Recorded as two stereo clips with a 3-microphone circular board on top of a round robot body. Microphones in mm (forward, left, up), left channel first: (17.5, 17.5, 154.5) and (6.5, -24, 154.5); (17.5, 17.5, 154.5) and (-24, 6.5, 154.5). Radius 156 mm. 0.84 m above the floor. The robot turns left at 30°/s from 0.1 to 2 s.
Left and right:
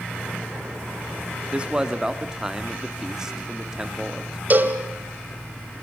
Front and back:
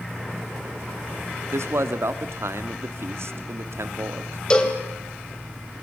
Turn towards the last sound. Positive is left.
turn(degrees=-55)